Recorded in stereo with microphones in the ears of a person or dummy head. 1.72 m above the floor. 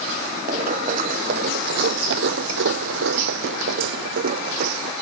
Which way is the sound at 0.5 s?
45° right (ahead or behind).